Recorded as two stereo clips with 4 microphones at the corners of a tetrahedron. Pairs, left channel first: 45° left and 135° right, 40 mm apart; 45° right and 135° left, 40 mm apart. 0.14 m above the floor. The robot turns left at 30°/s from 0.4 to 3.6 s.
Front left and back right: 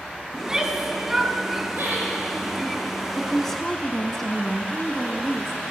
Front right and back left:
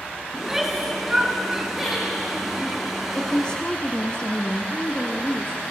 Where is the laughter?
140° right, 6.5 m; by 2.1 s 150° right, 6.5 m.